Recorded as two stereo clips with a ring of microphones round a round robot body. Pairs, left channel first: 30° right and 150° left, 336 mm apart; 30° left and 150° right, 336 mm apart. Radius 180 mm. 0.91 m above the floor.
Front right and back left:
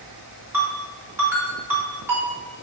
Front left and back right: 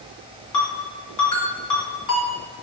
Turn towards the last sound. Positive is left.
turn(degrees=65)